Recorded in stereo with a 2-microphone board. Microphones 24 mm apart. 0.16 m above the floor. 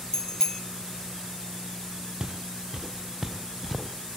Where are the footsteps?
45° right (ahead or behind), 2.5 m; by 4.2 s centre (ahead or behind), 3 m.